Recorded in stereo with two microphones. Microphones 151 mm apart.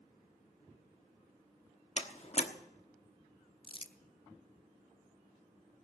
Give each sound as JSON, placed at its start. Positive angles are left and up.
{"t": 2.0, "sound": "a door slam", "side_deg": 45, "distance_m": 1.0}
{"t": 3.6, "sound": "crumpling", "side_deg": 35, "distance_m": 0.8}